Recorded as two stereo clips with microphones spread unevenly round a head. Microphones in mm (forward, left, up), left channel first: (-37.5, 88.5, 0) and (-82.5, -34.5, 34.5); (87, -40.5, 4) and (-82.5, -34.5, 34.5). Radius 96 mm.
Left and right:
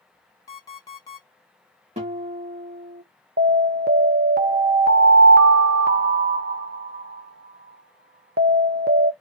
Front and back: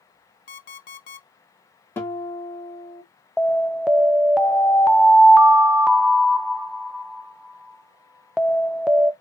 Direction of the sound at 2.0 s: 85° right.